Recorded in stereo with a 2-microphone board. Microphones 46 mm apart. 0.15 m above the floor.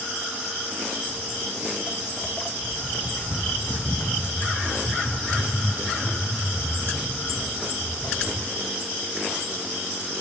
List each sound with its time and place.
1.1 s footsteps: centre (ahead or behind), 1.5 m; by 8.4 s 40° left (ahead or behind), 3 m